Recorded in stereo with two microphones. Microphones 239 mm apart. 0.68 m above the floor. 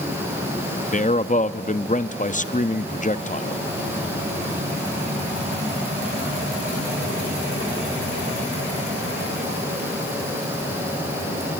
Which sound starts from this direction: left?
A man speaking, at 0.9 s.